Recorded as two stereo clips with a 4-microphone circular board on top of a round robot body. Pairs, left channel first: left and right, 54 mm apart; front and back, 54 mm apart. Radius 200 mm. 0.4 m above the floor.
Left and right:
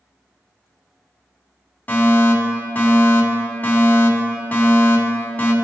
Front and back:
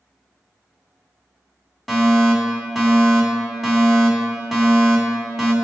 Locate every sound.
1.9 s a fire alarm: 85° left, 2 m